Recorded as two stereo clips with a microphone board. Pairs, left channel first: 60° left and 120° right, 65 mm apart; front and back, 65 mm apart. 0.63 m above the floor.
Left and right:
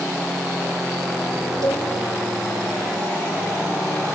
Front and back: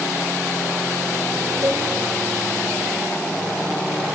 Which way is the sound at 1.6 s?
140° right.